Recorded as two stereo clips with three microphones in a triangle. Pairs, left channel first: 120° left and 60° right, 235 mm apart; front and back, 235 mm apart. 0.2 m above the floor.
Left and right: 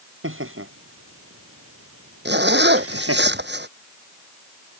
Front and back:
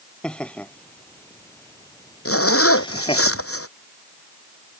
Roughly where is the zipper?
Ahead.